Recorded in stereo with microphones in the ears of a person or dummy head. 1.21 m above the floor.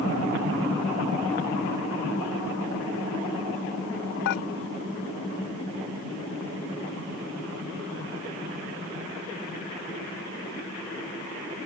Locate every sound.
4.2 s dishes clattering: 65° left (ahead or behind)